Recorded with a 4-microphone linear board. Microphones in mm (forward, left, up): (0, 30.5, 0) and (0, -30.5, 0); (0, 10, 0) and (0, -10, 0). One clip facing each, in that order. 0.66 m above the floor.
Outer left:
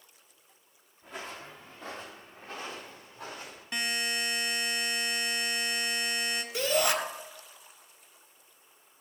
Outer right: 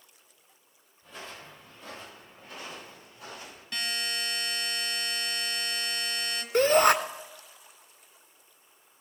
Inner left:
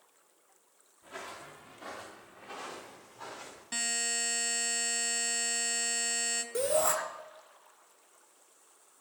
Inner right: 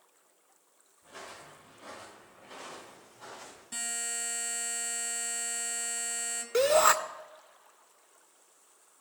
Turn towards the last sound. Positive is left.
turn(degrees=-50)  # may be behind; listen again after turning